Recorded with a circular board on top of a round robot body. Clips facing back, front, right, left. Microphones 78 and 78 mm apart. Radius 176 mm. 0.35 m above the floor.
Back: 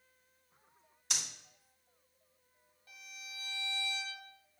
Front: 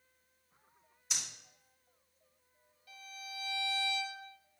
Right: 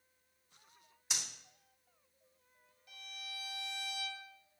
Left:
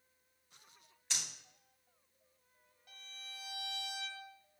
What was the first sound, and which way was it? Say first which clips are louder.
Breathing: back 2 dB, right 1 dB; 170° right.